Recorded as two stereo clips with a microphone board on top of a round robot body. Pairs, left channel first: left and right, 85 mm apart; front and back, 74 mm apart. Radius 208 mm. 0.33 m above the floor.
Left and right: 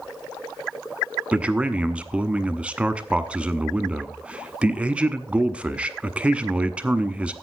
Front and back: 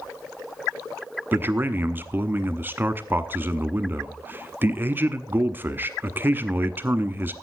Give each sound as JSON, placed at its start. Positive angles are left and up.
{"t": 1.3, "sound": "a man speaking", "azimuth_deg": -155, "distance_m": 1.3}